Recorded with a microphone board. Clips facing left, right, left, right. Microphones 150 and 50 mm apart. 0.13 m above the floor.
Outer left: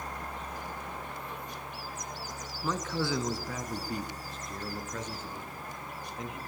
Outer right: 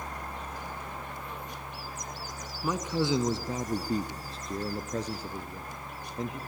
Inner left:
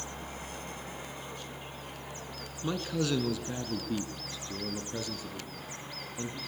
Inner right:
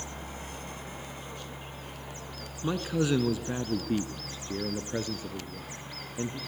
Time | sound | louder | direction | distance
2.6 | a man speaking | outer right 3 dB, inner right 3 dB | 10° right (ahead or behind) | 1.2 m